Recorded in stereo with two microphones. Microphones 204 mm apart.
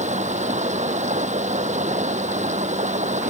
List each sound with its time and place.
0.0 s running water: 35° right (ahead or behind)